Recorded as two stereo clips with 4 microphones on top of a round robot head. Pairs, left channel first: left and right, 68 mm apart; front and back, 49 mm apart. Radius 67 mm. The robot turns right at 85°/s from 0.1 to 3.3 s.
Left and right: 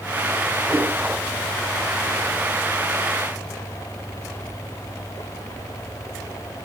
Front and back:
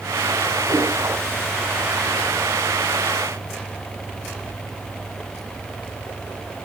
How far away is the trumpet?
No trumpet in this recording.